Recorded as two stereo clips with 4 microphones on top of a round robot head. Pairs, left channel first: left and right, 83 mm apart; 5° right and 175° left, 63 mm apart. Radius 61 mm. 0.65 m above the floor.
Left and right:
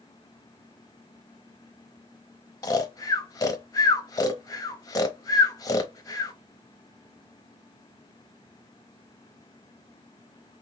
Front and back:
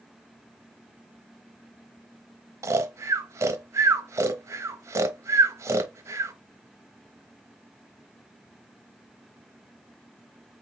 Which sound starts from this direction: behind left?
Snoring, at 2.6 s.